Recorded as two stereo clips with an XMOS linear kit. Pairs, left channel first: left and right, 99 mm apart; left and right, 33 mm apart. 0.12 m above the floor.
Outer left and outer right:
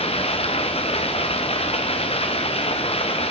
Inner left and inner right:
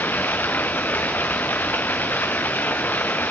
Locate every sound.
0.0 s running water: 85° left, 2 m